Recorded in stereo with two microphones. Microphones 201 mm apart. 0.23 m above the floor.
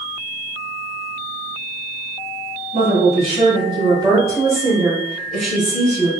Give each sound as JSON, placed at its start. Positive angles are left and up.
{"t": 2.7, "sound": "a woman speaking", "side_deg": -40, "distance_m": 1.5}